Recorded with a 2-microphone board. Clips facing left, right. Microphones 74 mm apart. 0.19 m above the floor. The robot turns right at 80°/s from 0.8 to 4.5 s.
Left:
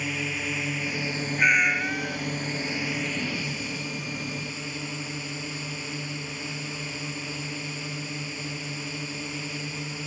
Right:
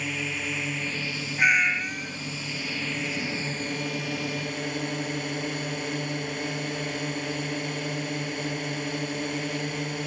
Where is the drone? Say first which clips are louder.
Left 1 dB; 5° left; by 10.1 s 60° right.